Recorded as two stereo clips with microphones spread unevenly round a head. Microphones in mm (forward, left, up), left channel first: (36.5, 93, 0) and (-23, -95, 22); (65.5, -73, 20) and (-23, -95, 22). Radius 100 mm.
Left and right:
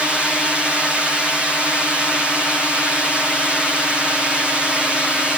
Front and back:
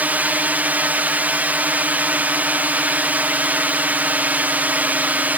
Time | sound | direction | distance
0.0 | a drone | 155° left | ?